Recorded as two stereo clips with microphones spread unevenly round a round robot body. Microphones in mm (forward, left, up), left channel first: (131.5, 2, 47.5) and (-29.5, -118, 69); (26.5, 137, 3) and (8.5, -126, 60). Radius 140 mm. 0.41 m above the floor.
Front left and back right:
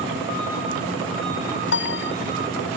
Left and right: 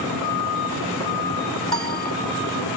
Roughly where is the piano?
Ahead.